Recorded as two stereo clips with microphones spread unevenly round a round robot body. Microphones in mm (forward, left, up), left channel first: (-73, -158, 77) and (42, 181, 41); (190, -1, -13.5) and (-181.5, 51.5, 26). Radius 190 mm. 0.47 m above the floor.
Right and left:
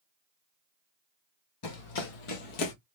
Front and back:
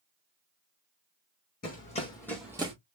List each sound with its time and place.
1.6 s running footsteps: 75° right, 1.7 m; by 2.7 s 120° right, 1.1 m